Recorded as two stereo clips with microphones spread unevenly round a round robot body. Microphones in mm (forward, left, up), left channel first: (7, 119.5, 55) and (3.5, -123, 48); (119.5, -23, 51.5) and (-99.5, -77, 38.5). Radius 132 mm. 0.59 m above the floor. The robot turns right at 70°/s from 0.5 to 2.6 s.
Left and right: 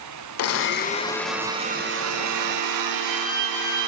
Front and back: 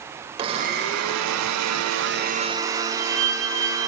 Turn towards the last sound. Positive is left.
turn(degrees=-140)